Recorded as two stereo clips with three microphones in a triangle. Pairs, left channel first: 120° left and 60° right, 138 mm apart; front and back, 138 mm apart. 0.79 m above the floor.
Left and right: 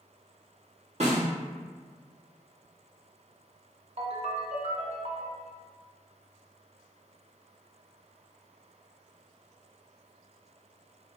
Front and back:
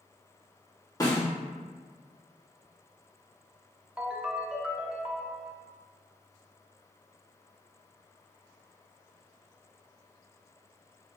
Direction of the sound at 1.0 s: 60° right.